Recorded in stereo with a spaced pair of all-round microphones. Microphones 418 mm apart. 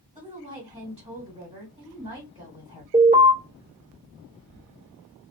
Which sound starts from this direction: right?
An alarm, at 2.9 s.